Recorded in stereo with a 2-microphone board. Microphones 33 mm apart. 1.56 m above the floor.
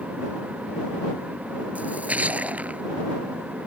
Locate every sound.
1.8 s a splash: 45° right (ahead or behind)